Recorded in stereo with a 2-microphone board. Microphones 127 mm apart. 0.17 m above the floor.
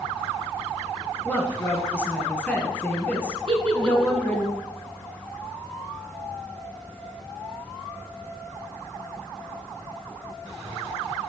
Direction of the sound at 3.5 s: 55° right (ahead or behind).